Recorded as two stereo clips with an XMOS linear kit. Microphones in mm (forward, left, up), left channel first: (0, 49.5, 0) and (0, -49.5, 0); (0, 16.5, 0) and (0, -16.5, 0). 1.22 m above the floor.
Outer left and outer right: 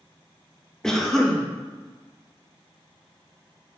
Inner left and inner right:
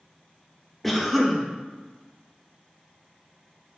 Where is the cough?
5° left (ahead or behind), 1.5 m.